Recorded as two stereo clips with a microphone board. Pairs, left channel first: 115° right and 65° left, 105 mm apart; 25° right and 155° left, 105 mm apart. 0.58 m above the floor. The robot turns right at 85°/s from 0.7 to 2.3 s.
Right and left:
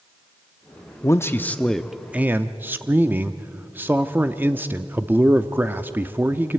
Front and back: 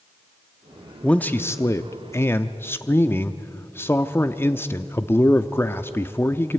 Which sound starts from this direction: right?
A man speaking, at 1.0 s.